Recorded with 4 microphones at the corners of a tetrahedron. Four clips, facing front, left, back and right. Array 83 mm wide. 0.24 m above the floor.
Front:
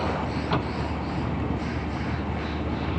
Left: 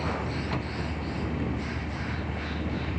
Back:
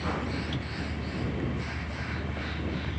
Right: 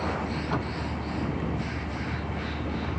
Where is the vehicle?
10° right.